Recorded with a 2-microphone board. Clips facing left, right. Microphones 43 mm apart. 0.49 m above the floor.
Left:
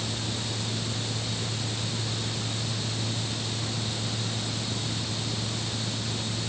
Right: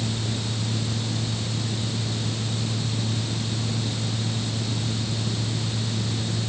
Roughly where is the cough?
I don't hear a cough.